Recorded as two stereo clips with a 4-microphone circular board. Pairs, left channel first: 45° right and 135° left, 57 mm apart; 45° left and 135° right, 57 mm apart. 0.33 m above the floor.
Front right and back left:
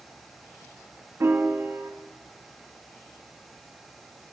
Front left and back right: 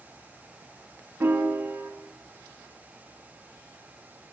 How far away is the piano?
About 0.5 m.